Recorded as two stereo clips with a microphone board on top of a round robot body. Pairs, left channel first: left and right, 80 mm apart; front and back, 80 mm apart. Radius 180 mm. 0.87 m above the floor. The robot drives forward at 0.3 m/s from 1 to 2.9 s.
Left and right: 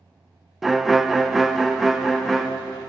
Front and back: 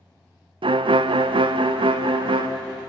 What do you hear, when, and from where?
0.6 s a violin: straight behind, 0.6 m